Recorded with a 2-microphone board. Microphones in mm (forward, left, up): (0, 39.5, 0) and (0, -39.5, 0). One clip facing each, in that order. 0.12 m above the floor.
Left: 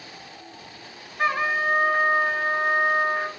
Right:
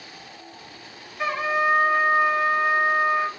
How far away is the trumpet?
About 1.4 m.